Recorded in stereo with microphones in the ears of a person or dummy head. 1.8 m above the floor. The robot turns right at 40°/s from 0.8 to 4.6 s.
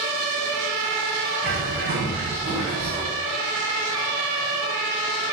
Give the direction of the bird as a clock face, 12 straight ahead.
4 o'clock.